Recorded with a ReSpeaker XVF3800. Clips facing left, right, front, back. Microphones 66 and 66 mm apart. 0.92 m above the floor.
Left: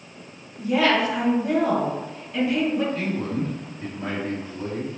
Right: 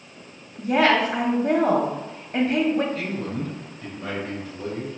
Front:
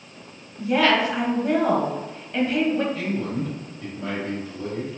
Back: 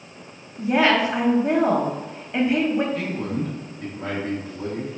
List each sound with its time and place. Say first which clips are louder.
0.6 s a woman speaking: right 1 dB, back 1 dB; 115° right, 1.0 m
2.9 s a man speaking: left 2 dB, even; 140° left, 1.7 m